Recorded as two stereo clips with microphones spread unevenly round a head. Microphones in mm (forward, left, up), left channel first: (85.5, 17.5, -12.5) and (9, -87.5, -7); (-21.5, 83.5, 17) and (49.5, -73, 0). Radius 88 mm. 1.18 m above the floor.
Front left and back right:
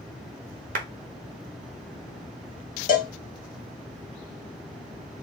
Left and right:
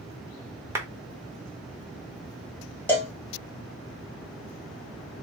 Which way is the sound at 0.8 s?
145° right.